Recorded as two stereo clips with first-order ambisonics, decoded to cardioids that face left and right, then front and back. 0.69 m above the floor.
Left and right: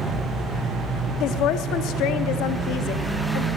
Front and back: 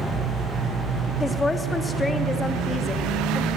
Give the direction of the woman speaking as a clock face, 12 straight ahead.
9 o'clock.